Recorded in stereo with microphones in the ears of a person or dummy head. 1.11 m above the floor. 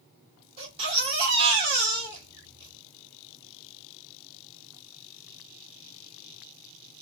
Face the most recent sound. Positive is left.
turn(degrees=-35)  # may be behind; listen again after turning